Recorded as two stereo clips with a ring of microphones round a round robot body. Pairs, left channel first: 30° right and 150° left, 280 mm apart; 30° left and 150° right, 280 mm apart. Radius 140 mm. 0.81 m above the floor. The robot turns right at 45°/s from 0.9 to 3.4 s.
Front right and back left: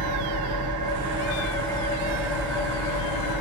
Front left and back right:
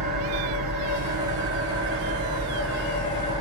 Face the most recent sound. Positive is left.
turn(degrees=-35)